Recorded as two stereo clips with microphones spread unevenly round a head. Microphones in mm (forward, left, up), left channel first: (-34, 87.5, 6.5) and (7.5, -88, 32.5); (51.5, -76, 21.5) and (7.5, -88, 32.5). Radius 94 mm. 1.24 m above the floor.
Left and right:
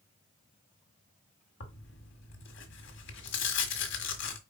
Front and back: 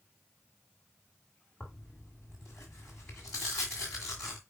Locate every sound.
1.6 s tearing paper: 110° left, 1.6 m